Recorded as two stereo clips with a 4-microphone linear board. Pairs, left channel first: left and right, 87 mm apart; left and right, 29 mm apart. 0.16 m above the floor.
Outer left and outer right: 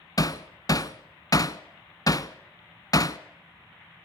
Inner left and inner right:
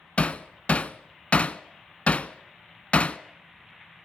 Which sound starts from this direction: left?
Hammering, at 0.2 s.